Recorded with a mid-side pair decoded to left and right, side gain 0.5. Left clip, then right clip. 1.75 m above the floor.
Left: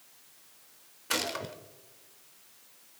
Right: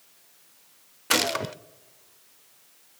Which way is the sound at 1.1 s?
50° right.